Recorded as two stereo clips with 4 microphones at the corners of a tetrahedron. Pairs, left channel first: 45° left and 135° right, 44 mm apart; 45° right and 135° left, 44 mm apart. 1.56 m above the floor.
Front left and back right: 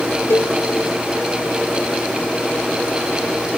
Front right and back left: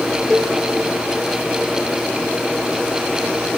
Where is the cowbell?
55° left, 0.6 m.